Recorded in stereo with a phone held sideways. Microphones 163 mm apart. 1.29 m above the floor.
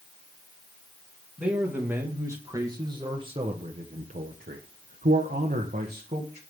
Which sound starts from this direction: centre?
A man speaking, at 1.4 s.